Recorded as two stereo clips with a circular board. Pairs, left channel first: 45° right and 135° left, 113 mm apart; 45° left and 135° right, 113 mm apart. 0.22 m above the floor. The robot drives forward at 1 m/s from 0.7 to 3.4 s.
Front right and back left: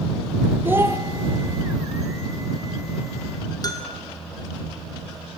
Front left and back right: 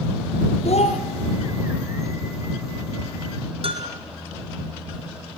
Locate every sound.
0.7 s a child speaking: 65° left, 3 m; by 1.0 s 70° left, 3 m
3.6 s a bell: 100° right, 3 m